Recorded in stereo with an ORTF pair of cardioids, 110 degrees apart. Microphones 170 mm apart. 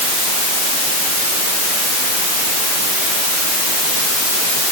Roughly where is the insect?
No insect in this recording.